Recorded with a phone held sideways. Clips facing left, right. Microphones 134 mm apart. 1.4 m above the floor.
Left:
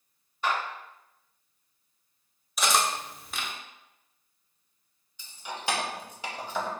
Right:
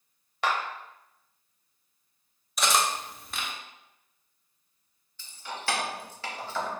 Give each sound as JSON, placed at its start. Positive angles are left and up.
{"t": 0.4, "sound": "a clap", "side_deg": -80, "distance_m": 0.7}
{"t": 2.6, "sound": "cutlery clinking", "side_deg": 0, "distance_m": 0.5}
{"t": 5.2, "sound": "keys jangling", "side_deg": 15, "distance_m": 0.6}